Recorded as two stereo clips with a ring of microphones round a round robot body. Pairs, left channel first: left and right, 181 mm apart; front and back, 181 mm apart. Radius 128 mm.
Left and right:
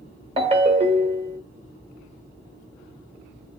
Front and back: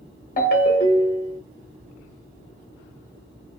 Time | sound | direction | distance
0.4 | a ringtone | 45° right | 1.0 m